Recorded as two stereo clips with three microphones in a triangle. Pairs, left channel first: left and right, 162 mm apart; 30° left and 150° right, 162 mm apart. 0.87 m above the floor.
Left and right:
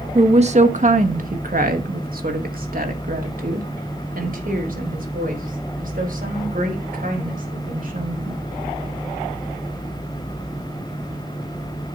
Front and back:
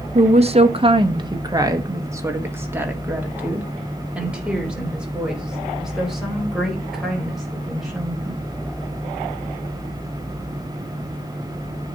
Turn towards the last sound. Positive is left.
turn(degrees=-60)